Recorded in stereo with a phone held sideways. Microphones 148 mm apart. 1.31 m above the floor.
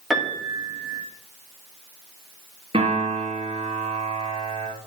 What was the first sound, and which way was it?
A piano, centre (ahead or behind).